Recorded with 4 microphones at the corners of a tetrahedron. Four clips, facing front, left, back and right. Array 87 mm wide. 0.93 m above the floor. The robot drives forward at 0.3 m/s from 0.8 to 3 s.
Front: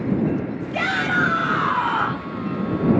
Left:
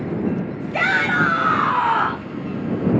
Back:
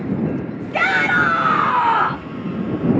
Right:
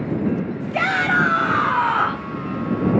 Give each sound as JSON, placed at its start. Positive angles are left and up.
{"t": 0.7, "sound": "a shout", "azimuth_deg": 155, "distance_m": 1.4}